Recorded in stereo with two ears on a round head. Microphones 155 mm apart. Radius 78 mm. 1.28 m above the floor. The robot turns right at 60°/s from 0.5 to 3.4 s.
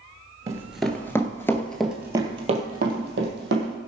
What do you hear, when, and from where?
0.5 s running footsteps: 20° right (ahead or behind), 1.4 m; by 3.8 s 65° right (ahead or behind), 3.5 m